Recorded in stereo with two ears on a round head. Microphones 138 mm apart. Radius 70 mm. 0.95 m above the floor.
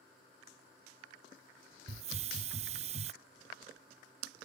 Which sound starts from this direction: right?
A hiss, at 1.9 s.